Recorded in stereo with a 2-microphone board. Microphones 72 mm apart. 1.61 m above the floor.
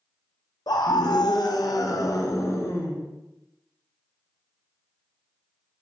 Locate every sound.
0.7 s a scream: 70° left (ahead or behind), 0.7 m; by 3.0 s 35° left (ahead or behind), 1.5 m